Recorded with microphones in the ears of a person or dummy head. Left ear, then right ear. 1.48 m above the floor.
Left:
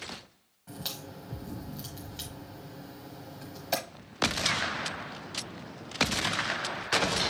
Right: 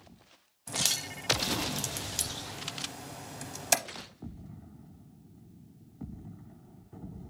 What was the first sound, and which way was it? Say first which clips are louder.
A crack: right 9 dB; 65° right (ahead or behind).